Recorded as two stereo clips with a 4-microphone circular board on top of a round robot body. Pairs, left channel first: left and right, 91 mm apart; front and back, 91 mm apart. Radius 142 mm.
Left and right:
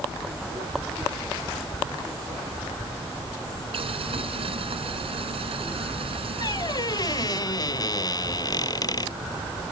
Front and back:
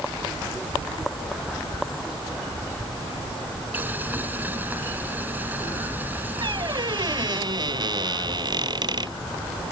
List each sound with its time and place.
3.7 s boiling: 110° right
6.4 s a squeak: 135° left